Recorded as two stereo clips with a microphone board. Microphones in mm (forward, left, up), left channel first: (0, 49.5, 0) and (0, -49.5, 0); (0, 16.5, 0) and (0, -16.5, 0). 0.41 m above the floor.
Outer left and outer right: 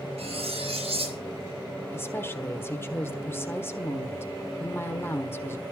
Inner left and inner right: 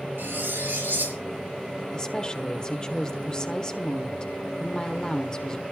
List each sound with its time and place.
0.2 s cutlery clinking: 80° right, 5 m
1.9 s a woman speaking: 25° left (ahead or behind), 1.4 m